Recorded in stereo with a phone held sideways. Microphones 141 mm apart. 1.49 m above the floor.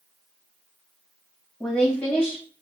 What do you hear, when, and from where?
1.6 s a woman speaking: 5° left (ahead or behind), 2 m